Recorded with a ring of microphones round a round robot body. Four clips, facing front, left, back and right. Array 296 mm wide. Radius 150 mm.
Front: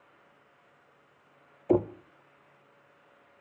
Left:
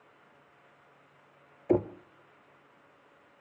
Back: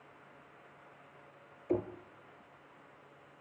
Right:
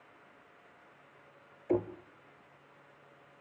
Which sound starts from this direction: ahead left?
Knocking, at 1.7 s.